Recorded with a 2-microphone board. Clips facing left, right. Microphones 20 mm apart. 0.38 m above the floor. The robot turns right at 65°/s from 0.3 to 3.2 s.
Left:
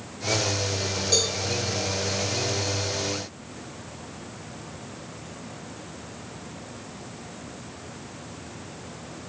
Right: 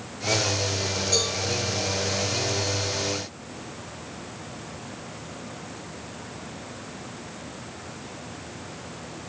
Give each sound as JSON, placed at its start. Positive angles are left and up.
{"t": 1.1, "sound": "a cowbell", "side_deg": 25, "distance_m": 1.0}